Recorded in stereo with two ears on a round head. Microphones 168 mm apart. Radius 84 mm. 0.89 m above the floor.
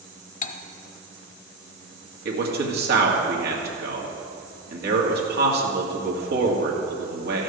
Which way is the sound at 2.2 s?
55° right (ahead or behind).